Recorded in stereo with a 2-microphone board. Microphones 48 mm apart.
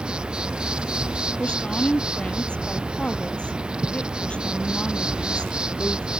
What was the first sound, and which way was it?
An insect, 20° right (ahead or behind).